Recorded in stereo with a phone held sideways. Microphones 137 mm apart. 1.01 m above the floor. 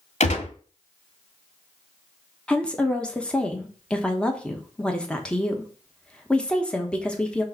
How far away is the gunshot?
About 1.3 m.